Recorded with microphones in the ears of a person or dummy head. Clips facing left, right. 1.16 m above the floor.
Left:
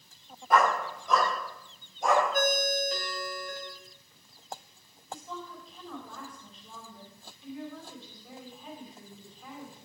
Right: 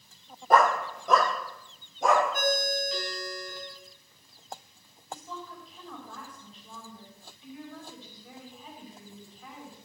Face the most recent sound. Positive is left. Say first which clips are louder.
# even
turn(degrees=10)  # may be behind; listen again after turning